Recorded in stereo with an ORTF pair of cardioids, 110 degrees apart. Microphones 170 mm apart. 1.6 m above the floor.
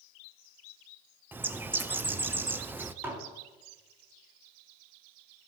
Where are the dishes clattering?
15° right, 2.5 m.